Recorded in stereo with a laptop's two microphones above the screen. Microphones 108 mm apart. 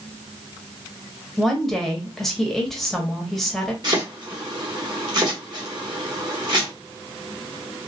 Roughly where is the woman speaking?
Centre.